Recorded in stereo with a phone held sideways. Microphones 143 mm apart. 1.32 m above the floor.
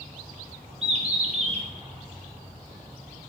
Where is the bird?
45° right (ahead or behind), 1.0 m.